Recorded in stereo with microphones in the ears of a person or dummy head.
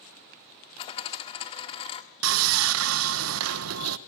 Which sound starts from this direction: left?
A dropped coin, at 0.8 s.